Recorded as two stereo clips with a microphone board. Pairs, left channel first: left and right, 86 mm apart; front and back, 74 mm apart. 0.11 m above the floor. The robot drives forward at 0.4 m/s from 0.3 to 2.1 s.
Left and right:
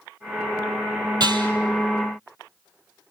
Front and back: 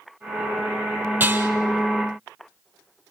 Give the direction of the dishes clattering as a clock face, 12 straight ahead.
4 o'clock.